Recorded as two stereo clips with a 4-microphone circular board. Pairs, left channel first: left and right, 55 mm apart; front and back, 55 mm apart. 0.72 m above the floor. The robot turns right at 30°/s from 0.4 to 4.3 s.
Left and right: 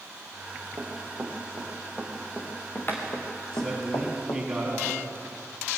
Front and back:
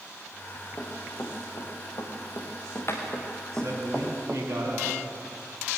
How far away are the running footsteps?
About 5.5 m.